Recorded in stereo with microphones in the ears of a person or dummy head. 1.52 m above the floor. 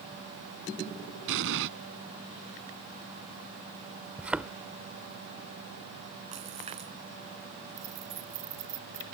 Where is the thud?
5° right (ahead or behind).